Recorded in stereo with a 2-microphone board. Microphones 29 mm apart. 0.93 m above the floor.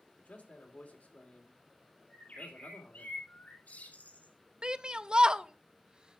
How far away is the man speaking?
About 3 m.